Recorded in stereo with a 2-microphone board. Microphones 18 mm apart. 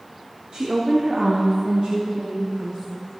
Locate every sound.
0.5 s a woman speaking: 65° right (ahead or behind), 1.6 m; by 3.0 s 80° right, 2.5 m